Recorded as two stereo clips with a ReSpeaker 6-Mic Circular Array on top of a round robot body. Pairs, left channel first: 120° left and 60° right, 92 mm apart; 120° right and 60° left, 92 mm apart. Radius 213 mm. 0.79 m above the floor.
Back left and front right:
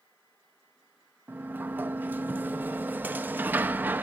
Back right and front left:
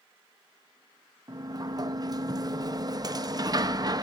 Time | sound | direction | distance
1.3 | a sliding door | 10° left | 0.6 m